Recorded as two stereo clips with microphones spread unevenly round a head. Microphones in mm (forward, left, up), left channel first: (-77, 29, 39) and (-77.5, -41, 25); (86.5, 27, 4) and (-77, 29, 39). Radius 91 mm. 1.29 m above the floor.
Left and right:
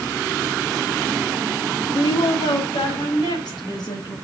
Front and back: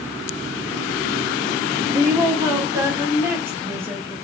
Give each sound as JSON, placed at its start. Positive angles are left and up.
{"t": 1.9, "sound": "a woman speaking", "azimuth_deg": 105, "distance_m": 2.5}